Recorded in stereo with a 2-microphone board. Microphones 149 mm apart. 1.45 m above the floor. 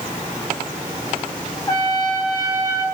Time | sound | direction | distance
1.7 | a trumpet | 30° left (ahead or behind) | 5.5 m